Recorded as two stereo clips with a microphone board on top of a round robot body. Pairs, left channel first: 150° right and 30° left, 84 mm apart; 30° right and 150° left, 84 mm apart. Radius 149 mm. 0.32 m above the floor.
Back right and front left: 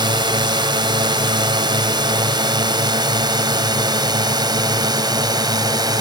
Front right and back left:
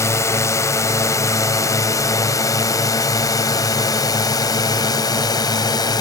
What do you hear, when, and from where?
0.0 s a drone: 20° left; by 6.0 s straight ahead